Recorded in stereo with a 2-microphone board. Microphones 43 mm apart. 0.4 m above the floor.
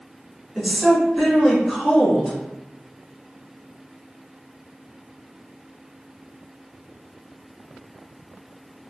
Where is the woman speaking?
5° right (ahead or behind), 1.5 m.